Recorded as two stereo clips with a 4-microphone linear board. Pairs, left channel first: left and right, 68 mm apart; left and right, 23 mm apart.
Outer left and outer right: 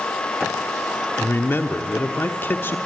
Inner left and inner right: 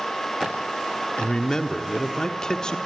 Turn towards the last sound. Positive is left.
turn(degrees=35)  # may be behind; listen again after turning